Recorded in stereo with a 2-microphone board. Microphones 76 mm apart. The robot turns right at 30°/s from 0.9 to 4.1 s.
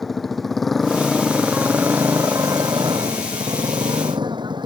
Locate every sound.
0.0 s a motorcycle: straight behind; by 4.7 s 85° right